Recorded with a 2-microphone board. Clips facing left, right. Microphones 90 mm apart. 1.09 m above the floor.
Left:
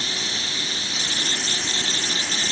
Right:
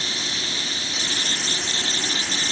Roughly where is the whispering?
I don't hear whispering.